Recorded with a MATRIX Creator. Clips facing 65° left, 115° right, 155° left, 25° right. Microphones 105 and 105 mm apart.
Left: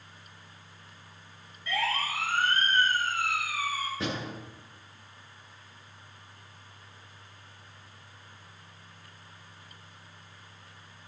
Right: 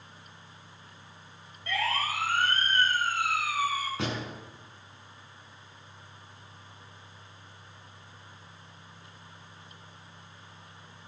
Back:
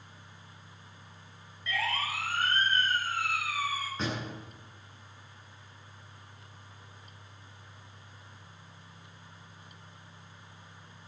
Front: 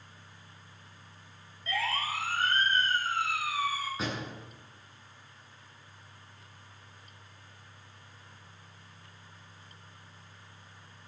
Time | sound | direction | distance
1.7 | a siren | 75° right | 7 m
4.0 | a door slam | 110° right | 8.5 m